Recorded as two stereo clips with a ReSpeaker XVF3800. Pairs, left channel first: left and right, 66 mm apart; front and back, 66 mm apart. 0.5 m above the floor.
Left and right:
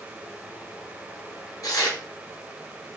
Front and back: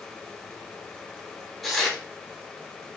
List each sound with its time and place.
1.6 s tearing paper: 85° left, 1.0 m